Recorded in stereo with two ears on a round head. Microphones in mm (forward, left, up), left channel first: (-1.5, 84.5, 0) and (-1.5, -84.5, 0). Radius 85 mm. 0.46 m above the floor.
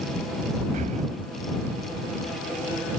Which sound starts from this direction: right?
Breathing, at 0.7 s.